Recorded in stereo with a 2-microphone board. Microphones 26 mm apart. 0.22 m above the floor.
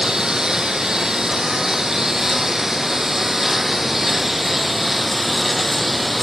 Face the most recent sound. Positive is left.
turn(degrees=-5)  # may be behind; listen again after turning